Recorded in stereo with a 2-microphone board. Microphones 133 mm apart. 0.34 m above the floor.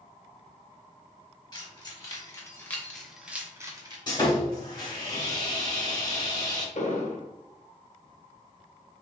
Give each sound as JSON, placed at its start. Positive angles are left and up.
{"t": 1.5, "sound": "keys jangling", "side_deg": 35, "distance_m": 1.6}
{"t": 4.1, "sound": "sawing", "side_deg": 35, "distance_m": 1.4}
{"t": 6.8, "sound": "an explosion", "side_deg": 70, "distance_m": 1.0}